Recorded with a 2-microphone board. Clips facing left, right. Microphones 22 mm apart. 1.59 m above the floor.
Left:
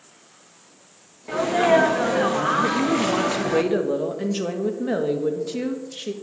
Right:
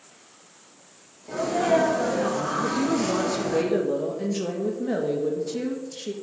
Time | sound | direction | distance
1.3 | a sneeze | 70° left (ahead or behind) | 1.3 m
2.6 | a woman speaking | 25° left (ahead or behind) | 1.6 m